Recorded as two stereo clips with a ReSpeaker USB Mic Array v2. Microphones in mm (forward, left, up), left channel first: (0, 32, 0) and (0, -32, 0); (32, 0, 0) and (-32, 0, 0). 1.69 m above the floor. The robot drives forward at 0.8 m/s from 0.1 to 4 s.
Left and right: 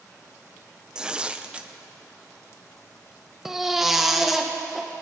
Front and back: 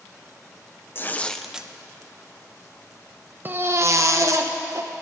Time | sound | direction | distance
0.9 | tearing paper | 20° right | 0.7 m
3.5 | a baby crying | 170° right | 0.7 m